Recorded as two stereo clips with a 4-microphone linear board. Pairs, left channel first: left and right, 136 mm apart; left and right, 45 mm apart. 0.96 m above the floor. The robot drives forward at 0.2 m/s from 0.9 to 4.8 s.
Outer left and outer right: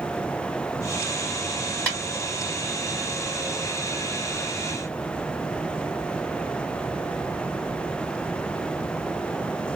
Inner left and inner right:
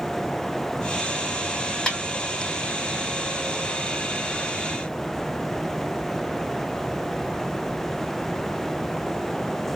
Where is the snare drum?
10° left (ahead or behind), 1.3 m.